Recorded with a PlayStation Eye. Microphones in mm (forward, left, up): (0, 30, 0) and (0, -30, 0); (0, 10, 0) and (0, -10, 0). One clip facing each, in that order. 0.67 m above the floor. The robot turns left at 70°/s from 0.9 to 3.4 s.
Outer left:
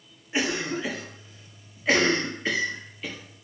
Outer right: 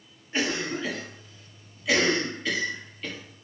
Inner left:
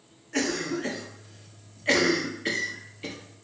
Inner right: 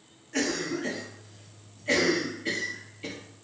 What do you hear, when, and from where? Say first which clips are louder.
0.3 s a cough: outer left 1 dB, inner left 1 dB; 10° left (ahead or behind), 0.7 m; by 3.2 s 5° left (ahead or behind), 0.7 m